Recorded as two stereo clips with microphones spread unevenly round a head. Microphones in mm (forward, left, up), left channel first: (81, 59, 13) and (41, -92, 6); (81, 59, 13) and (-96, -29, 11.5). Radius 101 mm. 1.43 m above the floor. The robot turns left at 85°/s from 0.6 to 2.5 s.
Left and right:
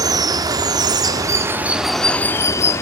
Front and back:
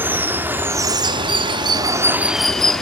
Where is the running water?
90° right, 1.0 m; by 2.8 s 110° left, 1.0 m.